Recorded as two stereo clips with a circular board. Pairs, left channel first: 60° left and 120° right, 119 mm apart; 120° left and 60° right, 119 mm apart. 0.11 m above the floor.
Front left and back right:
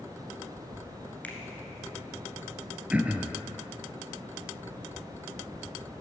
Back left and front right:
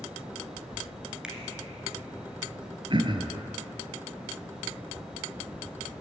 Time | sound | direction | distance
1.2 | a finger snap | 10° left | 1.5 m
2.9 | throat clearing | 45° right | 0.8 m